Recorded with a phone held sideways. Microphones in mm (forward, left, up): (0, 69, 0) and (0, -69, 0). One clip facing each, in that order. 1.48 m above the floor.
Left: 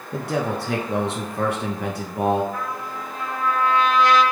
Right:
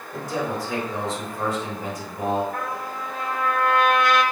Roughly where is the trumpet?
Right.